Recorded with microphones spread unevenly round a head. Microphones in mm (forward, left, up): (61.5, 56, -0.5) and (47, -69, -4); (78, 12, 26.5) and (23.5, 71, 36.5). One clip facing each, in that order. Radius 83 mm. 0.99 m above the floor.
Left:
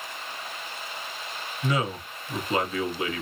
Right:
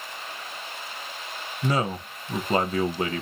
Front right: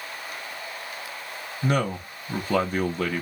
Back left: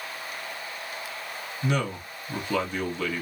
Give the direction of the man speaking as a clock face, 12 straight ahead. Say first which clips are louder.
Right 2 dB, front right 3 dB; 2 o'clock.